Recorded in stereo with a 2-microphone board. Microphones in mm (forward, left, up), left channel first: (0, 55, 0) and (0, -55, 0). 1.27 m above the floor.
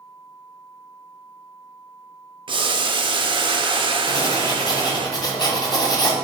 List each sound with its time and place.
2.5 s boiling: 45° right (ahead or behind), 0.5 m
4.1 s writing: 30° left (ahead or behind), 0.9 m